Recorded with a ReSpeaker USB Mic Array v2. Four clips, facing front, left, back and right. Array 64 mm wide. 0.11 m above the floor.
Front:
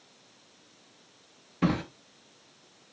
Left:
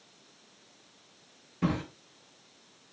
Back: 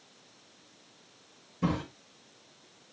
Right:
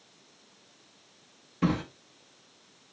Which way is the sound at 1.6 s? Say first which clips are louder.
Right 3 dB, front 3 dB; 20° right.